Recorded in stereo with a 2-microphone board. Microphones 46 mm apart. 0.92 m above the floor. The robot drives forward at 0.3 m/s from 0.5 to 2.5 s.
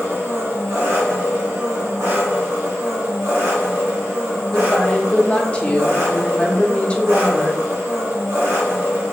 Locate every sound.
0.0 s an engine running: 65° right (ahead or behind), 1.1 m; by 9.1 s 70° right (ahead or behind), 1.1 m
4.5 s a woman speaking: 25° left (ahead or behind), 0.8 m